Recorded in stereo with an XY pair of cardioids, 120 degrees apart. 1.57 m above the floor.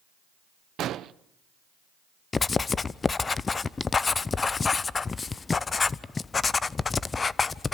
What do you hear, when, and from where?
0.8 s an explosion: 60° right, 0.8 m
2.3 s writing: 25° left, 0.6 m